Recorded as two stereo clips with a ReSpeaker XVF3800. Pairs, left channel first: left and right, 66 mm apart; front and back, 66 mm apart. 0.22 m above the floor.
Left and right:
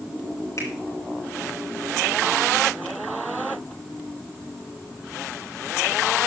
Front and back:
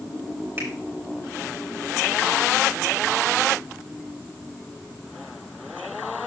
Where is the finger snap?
130° left, 4.5 m.